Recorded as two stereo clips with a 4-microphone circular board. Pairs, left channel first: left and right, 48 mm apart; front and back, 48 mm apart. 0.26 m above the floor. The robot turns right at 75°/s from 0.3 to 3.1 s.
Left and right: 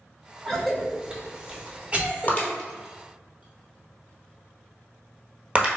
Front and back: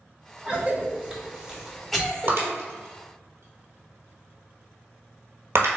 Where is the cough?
170° left, 1.3 m; by 2.5 s 35° right, 1.3 m.